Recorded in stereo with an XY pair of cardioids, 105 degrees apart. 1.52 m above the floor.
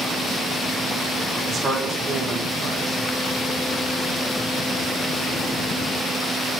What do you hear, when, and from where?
1.5 s a man speaking: 35° right, 1.9 m